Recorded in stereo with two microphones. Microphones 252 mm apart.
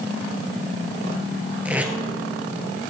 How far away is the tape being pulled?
About 1.5 m.